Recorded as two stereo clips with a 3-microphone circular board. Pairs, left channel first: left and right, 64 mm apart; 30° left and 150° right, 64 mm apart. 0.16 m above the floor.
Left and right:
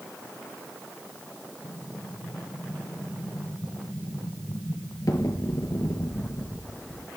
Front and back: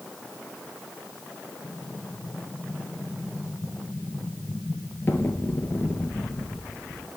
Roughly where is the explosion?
Left.